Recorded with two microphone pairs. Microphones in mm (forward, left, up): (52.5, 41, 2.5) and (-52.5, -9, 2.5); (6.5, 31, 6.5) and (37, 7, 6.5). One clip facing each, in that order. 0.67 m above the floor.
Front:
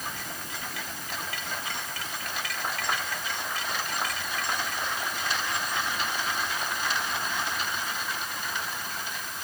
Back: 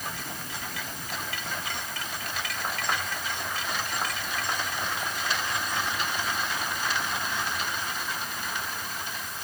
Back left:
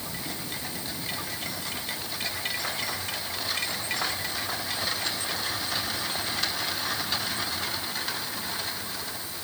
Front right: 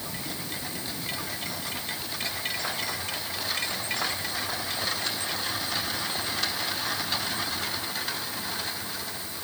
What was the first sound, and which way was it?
Only background noise.